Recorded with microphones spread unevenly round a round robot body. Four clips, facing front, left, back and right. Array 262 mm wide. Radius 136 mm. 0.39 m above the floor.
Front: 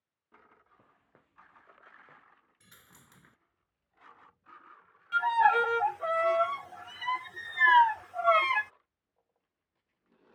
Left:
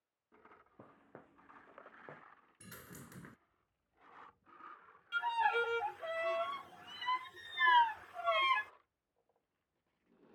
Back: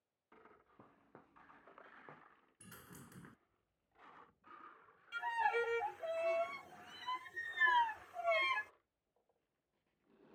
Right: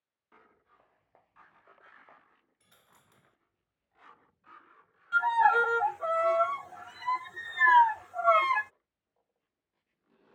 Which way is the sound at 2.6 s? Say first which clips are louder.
Left 13 dB, back 6 dB; 110° left.